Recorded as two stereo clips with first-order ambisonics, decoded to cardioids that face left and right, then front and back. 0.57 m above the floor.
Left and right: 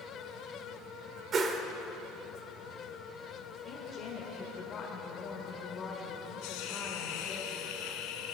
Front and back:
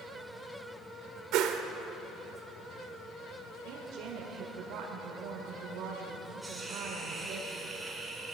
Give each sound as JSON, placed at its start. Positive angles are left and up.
{"t": 1.3, "sound": "a whoosh", "azimuth_deg": -150, "distance_m": 1.2}
{"t": 3.6, "sound": "a woman speaking", "azimuth_deg": 155, "distance_m": 1.6}
{"t": 6.4, "sound": "a hiss", "azimuth_deg": 95, "distance_m": 2.0}